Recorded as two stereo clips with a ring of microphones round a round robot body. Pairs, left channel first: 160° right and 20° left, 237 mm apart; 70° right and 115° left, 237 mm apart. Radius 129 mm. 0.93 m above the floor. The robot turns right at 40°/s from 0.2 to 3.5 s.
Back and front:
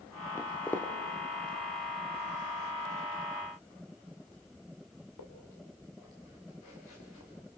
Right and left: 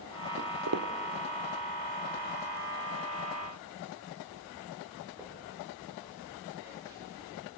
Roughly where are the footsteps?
Behind left.